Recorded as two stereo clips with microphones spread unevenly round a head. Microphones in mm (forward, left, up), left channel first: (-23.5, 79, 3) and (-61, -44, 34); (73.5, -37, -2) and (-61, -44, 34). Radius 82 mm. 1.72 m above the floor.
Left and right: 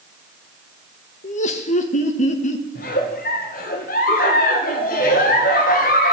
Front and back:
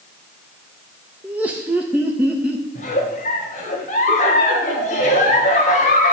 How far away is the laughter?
About 1.9 m.